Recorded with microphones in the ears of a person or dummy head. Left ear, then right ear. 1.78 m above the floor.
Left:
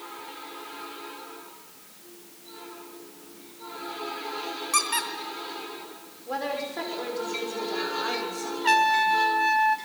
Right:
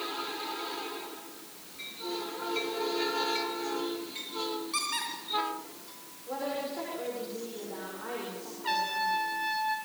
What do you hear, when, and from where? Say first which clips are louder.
4.7 s a squeak: left 8 dB; 35° left (ahead or behind), 3 m
6.3 s a woman speaking: left 4 dB; 75° left (ahead or behind), 6 m
8.6 s a trumpet: left 9 dB; 40° left (ahead or behind), 2 m